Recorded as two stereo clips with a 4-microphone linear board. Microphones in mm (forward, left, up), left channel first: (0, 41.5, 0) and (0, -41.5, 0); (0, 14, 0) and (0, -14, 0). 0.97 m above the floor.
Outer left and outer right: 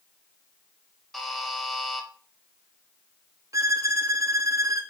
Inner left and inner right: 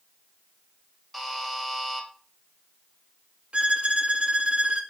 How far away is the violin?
About 2 m.